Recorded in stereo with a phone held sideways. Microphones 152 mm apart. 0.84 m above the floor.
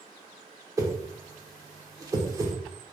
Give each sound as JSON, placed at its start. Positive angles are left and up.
{"t": 0.8, "sound": "a whoosh", "side_deg": -20, "distance_m": 0.9}